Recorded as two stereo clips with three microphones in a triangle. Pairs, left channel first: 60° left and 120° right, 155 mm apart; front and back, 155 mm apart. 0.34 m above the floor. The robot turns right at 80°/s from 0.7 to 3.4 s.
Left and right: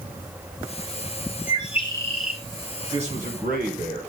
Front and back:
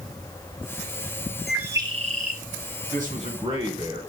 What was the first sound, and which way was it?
A bird, 90° left.